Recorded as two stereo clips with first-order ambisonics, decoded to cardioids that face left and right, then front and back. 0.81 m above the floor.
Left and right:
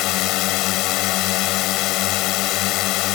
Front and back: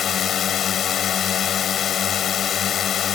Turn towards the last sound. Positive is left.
turn(degrees=60)